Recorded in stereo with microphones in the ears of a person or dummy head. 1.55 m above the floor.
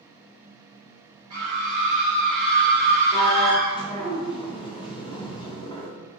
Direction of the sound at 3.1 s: 15° left (ahead or behind).